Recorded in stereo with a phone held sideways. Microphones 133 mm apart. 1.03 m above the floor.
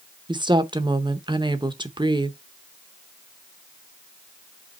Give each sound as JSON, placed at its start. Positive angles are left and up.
{"t": 0.3, "sound": "a woman speaking", "side_deg": -35, "distance_m": 0.9}